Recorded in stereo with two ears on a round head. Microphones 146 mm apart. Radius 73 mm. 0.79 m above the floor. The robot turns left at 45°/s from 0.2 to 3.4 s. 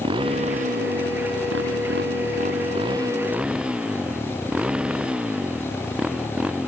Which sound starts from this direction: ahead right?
A motorcycle, at 0.0 s.